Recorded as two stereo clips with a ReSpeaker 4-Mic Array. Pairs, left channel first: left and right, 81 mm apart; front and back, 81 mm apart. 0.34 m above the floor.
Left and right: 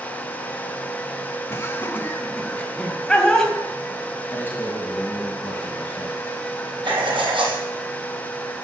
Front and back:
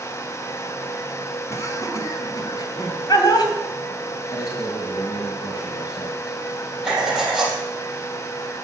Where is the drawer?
I don't hear a drawer.